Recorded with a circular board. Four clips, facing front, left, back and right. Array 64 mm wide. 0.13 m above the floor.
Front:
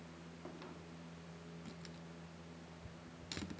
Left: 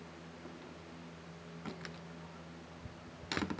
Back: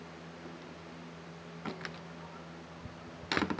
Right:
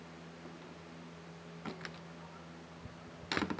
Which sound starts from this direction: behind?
A door slam, at 1.6 s.